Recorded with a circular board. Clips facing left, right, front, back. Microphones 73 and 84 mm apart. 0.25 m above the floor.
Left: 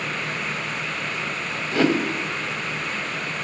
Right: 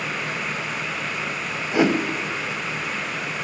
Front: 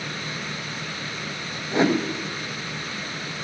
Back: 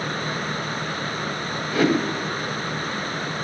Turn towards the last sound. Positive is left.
turn(degrees=-35)